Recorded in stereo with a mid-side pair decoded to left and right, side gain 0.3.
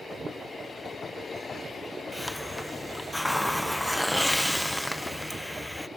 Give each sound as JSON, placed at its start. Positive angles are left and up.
{"t": 2.1, "sound": "a hiss", "azimuth_deg": 5, "distance_m": 0.8}